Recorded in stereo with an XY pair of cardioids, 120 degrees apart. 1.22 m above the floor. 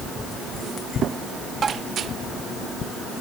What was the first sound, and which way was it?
Tapping, 40° right.